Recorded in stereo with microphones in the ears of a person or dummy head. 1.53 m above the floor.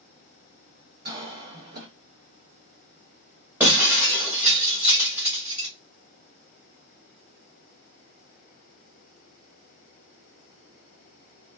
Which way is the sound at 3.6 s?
15° right (ahead or behind).